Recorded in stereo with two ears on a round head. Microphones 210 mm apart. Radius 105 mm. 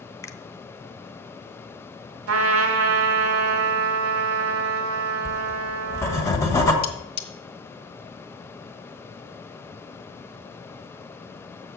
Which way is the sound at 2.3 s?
70° right (ahead or behind).